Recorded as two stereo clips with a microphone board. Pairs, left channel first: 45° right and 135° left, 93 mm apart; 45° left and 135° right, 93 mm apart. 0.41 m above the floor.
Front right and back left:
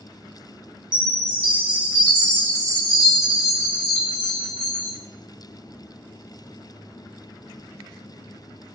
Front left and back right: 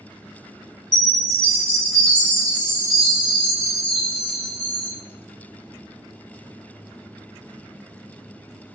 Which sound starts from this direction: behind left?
A chime, at 0.9 s.